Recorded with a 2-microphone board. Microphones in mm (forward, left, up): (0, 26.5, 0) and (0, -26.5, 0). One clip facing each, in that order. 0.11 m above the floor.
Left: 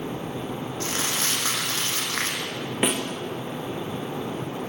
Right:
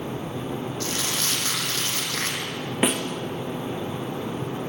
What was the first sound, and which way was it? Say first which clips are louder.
Crumpling: left 1 dB; 25° left (ahead or behind).